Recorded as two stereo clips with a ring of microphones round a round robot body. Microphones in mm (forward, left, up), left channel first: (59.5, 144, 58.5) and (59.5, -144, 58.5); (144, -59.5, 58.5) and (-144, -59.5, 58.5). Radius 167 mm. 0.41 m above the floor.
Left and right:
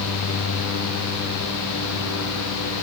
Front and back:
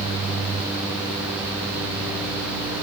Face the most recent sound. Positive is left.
No sound to turn to.